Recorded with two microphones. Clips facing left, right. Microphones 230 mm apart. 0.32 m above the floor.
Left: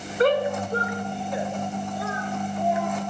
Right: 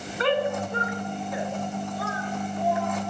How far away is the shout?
About 3 m.